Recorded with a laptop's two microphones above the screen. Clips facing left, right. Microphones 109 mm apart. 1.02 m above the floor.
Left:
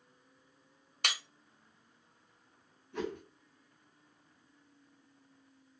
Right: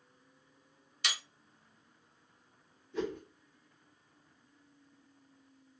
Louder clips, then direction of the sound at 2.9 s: Right 2 dB; 60° left (ahead or behind).